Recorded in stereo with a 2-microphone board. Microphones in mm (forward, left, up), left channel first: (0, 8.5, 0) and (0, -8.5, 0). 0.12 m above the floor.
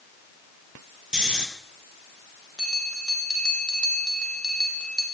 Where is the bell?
60° right (ahead or behind), 4 m.